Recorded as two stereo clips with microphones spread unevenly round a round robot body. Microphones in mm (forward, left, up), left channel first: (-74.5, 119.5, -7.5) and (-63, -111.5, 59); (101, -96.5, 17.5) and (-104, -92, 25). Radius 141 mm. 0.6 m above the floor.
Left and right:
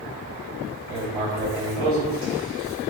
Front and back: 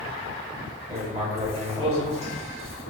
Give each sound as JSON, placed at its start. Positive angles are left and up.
{"t": 0.9, "sound": "writing", "azimuth_deg": -120, "distance_m": 1.6}